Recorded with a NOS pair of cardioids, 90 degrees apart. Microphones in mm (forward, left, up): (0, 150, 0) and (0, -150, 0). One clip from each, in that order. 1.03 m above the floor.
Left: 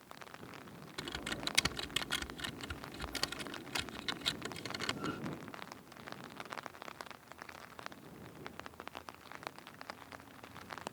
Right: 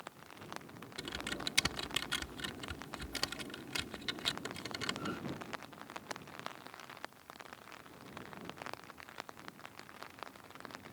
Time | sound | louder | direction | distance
1.0 | typing on a keyboard | even | straight ahead | ?